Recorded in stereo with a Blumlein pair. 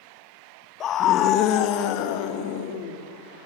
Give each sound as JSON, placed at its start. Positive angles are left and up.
{"t": 0.8, "sound": "a scream", "azimuth_deg": 30, "distance_m": 1.4}